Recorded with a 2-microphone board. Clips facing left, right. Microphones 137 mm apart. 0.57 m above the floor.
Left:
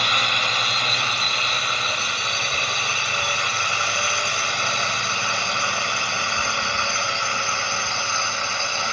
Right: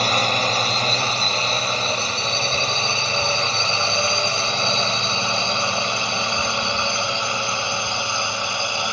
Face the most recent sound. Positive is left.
turn(degrees=-15)  # may be behind; listen again after turning